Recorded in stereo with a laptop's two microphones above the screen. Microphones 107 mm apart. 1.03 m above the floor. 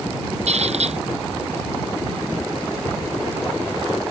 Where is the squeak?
80° right.